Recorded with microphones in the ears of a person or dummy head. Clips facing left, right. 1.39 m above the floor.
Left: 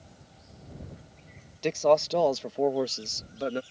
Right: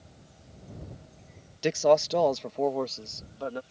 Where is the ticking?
I don't hear ticking.